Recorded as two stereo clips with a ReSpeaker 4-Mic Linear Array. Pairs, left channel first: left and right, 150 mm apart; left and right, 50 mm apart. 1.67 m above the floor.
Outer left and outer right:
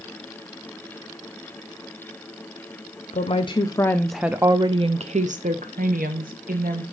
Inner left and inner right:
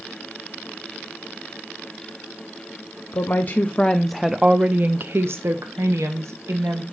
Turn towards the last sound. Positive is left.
turn(degrees=-75)  # may be behind; listen again after turning